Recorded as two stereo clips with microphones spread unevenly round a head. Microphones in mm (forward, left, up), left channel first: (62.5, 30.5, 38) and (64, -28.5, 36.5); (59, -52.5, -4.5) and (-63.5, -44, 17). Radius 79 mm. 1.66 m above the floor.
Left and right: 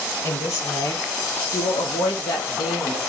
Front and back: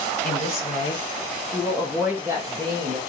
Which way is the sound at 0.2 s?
45° left.